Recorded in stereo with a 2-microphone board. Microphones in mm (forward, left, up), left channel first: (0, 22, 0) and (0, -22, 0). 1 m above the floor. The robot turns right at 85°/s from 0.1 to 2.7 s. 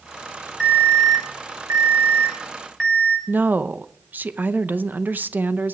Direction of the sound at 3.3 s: 45° right (ahead or behind).